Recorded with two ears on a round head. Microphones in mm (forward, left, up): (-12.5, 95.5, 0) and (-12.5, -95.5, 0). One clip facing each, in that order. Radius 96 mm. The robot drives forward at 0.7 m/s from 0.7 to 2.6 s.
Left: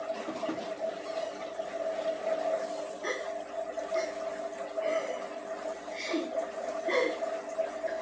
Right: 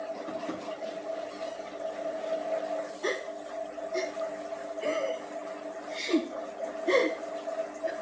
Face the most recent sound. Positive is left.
turn(degrees=-45)  # may be behind; listen again after turning